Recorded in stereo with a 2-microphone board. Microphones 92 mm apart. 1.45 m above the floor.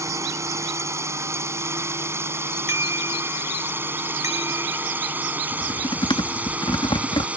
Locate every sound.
0.0 s a drone: 35° right (ahead or behind); by 7.4 s 15° right (ahead or behind)
2.7 s a bicycle bell: 35° right (ahead or behind)
5.5 s typing on a keyboard: 65° left (ahead or behind)